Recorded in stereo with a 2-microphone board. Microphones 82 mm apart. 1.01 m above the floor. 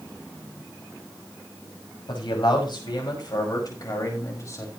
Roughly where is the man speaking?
Left.